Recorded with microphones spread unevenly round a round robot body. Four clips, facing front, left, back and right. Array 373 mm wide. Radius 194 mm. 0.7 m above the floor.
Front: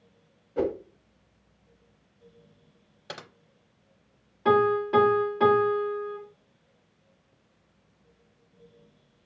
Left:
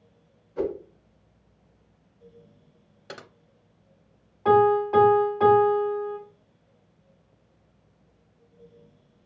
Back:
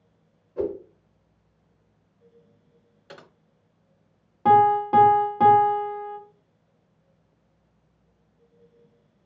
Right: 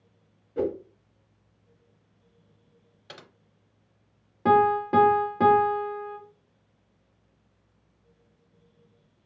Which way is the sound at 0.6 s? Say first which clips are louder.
Right 1 dB, even; 30° right.